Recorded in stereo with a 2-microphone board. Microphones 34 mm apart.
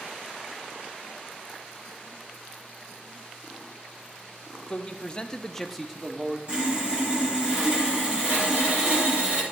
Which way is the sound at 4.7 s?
30° left (ahead or behind).